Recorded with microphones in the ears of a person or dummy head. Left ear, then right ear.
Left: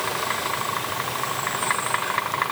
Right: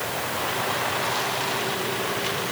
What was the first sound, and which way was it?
Only background noise.